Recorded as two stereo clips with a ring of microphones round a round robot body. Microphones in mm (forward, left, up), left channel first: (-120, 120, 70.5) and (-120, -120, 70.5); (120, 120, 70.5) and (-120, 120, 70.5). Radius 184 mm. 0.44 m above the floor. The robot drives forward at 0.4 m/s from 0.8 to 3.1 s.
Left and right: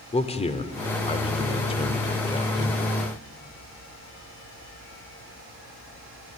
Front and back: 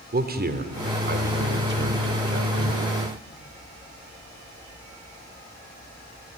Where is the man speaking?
145° left, 2.0 m; by 2.8 s 160° left, 2.5 m.